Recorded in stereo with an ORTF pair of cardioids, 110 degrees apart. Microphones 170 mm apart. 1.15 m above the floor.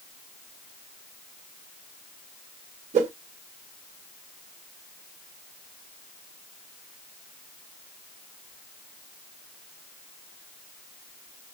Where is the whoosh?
40° right, 1.6 m.